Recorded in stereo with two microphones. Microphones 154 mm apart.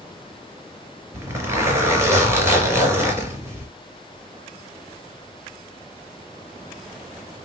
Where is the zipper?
15° right (ahead or behind), 3 m.